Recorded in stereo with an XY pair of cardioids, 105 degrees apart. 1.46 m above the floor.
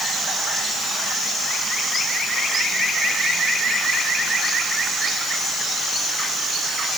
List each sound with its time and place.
Only background noise.